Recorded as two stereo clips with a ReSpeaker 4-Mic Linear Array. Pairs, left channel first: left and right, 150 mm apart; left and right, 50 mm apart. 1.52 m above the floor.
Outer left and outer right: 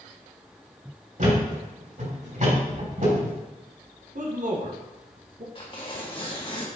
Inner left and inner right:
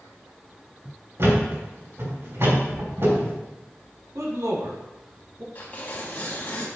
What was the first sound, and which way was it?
A thud, 60° right (ahead or behind).